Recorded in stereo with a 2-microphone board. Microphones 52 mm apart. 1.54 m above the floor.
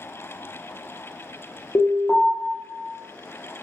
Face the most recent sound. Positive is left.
turn(degrees=75)  # may be behind; listen again after turning